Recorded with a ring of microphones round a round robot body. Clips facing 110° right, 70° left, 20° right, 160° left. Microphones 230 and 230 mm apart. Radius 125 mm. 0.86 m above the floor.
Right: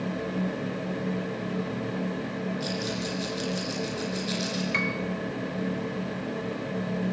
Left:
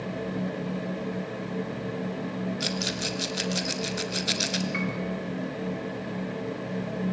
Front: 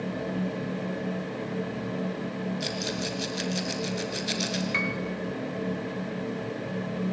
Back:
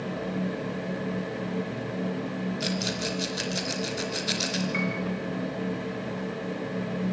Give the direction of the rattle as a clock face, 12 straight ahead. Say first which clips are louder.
Right 1 dB, back 1 dB; 10 o'clock.